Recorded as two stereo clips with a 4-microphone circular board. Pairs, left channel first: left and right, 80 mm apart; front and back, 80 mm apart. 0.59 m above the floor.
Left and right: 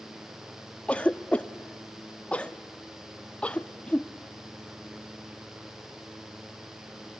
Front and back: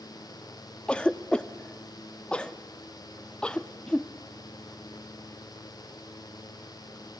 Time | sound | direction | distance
0.9 | a cough | 50° left | 0.5 m